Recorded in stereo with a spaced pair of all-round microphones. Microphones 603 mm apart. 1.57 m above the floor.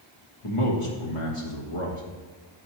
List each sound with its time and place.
0.4 s a man speaking: 55° left (ahead or behind), 1.4 m